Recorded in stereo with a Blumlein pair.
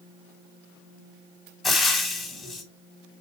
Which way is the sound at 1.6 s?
15° left.